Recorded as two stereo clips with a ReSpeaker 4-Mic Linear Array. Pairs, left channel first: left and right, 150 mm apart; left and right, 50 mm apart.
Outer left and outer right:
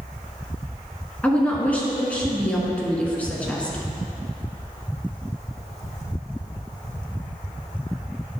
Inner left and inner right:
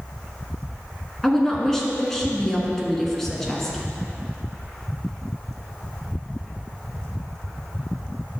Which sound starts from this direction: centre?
A woman speaking, at 1.2 s.